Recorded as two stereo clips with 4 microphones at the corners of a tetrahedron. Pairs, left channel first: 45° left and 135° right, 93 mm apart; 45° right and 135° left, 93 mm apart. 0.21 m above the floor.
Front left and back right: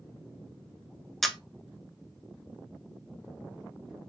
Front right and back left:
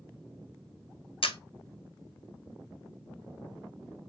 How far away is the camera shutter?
About 0.7 m.